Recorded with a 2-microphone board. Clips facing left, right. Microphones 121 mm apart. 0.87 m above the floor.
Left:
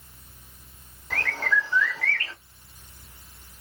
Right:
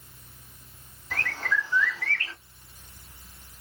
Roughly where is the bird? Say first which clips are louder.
Left 3 dB; left.